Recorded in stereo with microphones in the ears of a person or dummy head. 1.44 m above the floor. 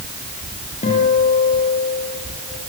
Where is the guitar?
35° left (ahead or behind), 7.5 m.